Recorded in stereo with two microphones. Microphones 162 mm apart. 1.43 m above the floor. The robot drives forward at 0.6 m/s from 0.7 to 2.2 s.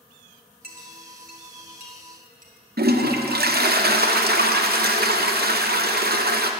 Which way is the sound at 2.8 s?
75° right (ahead or behind).